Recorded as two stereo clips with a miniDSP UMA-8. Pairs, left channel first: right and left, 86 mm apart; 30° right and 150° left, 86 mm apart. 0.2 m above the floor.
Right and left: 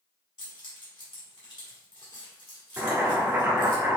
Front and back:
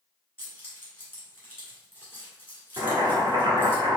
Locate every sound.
0.4 s keys jangling: 95° right, 1.7 m
2.8 s boiling: 145° left, 1.5 m